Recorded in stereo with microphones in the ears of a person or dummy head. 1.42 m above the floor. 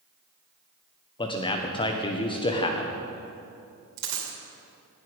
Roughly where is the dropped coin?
Right.